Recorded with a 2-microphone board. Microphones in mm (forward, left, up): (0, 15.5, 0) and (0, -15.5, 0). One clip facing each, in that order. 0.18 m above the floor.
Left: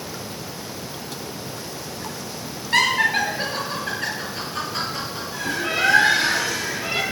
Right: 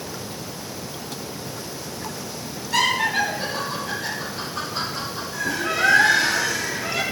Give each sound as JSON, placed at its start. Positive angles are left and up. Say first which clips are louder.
{"t": 2.7, "sound": "laughter", "louder": "left 2 dB", "side_deg": 45, "distance_m": 4.0}
{"t": 5.3, "sound": "a bird", "louder": "even", "side_deg": 35, "distance_m": 3.0}